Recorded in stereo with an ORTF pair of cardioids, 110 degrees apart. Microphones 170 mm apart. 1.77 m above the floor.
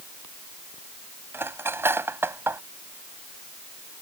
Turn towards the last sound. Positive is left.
turn(degrees=-15)